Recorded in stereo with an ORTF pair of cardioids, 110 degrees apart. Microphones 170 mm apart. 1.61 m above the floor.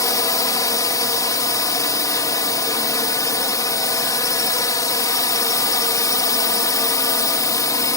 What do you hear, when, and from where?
0.0 s a drone: 20° left